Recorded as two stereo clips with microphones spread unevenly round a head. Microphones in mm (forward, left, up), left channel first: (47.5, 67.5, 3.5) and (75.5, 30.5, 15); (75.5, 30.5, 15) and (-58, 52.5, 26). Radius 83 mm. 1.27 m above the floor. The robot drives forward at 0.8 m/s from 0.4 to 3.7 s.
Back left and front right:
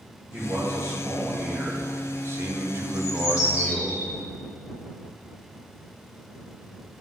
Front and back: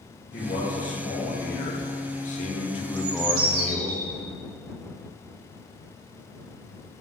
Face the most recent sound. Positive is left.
turn(degrees=160)